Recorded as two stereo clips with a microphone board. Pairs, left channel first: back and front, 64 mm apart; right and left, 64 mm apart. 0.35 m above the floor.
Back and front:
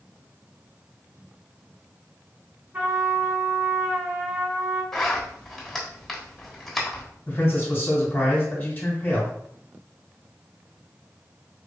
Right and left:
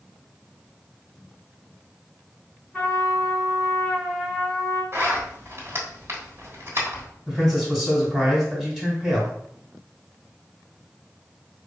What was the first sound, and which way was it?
A trumpet, 20° right.